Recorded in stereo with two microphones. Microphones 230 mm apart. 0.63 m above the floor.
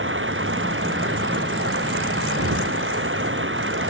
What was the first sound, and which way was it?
Running water, 60° right (ahead or behind).